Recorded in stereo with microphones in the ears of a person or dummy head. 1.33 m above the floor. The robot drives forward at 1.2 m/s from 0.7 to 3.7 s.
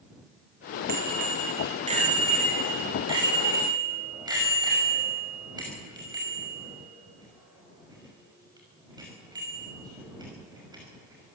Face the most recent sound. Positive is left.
turn(degrees=-25)  # may be behind; listen again after turning